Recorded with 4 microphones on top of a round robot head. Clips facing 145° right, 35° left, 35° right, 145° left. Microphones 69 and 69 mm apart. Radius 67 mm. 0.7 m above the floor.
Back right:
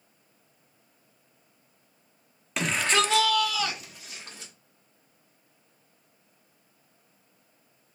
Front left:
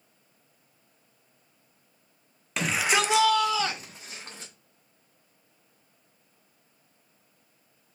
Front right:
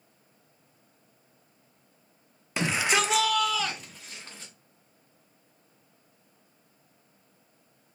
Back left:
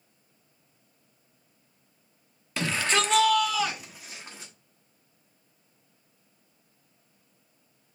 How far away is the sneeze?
No sneeze in this recording.